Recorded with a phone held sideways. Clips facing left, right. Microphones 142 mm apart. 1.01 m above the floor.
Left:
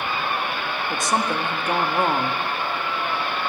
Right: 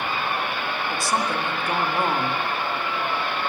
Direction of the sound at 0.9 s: 20° left (ahead or behind).